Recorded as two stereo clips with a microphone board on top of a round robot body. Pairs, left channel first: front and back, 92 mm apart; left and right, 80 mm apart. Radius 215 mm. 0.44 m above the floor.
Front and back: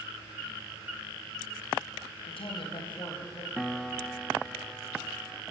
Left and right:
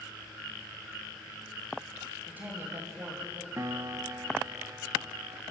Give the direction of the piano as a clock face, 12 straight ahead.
3 o'clock.